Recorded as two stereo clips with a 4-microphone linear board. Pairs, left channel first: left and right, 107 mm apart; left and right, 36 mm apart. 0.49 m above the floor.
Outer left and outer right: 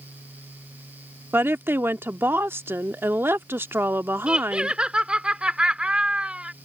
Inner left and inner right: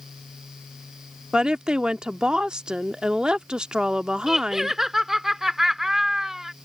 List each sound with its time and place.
1.3 s a woman speaking: 20° right (ahead or behind)
4.3 s laughter: 10° right (ahead or behind)